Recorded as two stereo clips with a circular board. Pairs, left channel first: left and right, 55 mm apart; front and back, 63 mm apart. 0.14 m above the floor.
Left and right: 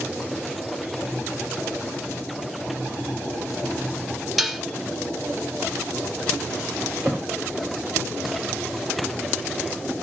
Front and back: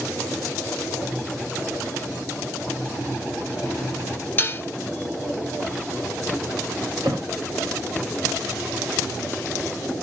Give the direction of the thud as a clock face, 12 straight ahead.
5 o'clock.